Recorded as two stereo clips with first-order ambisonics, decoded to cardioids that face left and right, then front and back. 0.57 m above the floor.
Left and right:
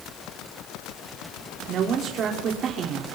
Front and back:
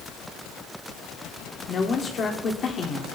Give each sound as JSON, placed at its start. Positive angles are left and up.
{"t": 1.7, "sound": "a woman speaking", "azimuth_deg": -50, "distance_m": 1.6}